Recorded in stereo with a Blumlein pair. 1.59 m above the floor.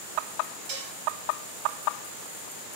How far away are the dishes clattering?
About 2.5 m.